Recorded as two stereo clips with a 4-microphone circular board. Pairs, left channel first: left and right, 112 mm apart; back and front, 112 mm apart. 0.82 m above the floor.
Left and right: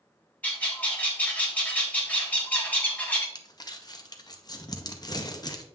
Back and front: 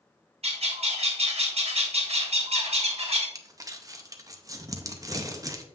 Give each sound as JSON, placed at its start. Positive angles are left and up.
{"t": 0.4, "sound": "a bird", "azimuth_deg": 15, "distance_m": 1.4}
{"t": 3.4, "sound": "crumpling", "azimuth_deg": 50, "distance_m": 0.7}